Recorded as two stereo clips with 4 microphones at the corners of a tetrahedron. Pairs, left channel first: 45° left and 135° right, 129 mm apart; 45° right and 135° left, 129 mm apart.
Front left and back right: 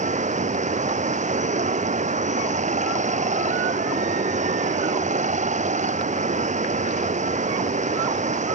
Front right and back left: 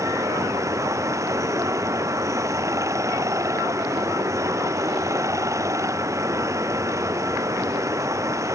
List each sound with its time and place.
0.0 s running water: 160° right